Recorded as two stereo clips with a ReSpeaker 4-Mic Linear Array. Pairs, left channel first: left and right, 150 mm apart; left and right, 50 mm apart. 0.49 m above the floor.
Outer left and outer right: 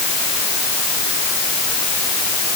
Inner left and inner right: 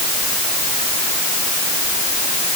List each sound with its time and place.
Only background noise.